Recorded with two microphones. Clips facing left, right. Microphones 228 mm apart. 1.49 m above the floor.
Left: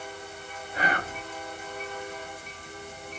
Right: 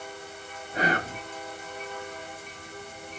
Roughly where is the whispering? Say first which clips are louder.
Right 3 dB; right.